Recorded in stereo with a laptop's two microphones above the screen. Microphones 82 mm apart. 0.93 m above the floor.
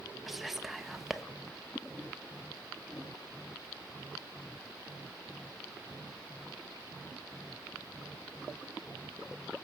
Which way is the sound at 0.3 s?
5° right (ahead or behind).